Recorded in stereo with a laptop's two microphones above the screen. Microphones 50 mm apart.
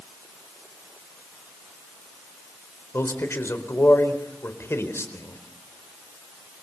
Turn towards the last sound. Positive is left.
turn(degrees=55)  # may be behind; listen again after turning